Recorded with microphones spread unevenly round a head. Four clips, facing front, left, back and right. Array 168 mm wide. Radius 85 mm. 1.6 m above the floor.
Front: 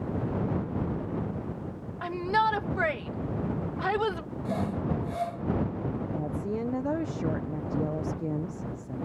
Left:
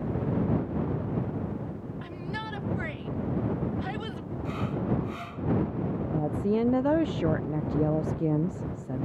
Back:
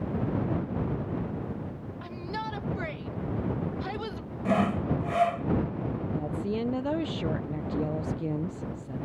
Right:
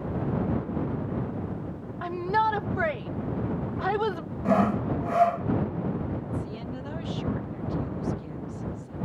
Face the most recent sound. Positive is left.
turn(degrees=95)